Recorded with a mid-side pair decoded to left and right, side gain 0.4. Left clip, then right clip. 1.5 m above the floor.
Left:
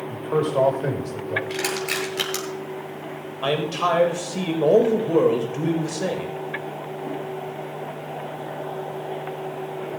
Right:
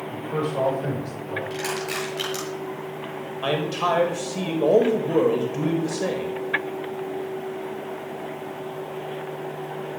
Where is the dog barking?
No dog barking in this recording.